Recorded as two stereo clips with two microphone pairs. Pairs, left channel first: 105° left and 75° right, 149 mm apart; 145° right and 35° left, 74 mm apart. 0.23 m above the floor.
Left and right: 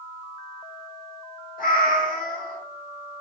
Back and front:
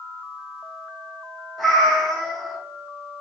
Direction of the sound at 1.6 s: 125° left.